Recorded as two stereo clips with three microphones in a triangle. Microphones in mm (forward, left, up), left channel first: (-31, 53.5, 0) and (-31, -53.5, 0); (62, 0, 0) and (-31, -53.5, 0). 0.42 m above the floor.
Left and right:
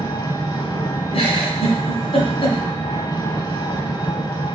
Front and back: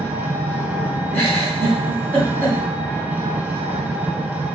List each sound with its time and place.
0.0 s an engine running: 135° left, 1.0 m
1.1 s a giggle: 100° left, 1.6 m